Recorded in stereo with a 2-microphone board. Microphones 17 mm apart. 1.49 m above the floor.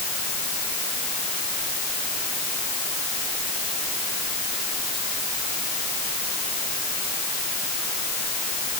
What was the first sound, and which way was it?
Only background noise.